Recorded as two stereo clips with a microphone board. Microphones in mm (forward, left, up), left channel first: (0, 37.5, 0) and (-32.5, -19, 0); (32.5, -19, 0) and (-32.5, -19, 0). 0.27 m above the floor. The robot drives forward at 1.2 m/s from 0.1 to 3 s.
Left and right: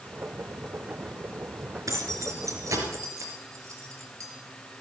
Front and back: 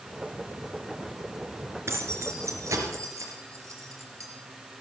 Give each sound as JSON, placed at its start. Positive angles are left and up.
{"t": 1.9, "sound": "keys jangling", "azimuth_deg": -140, "distance_m": 3.0}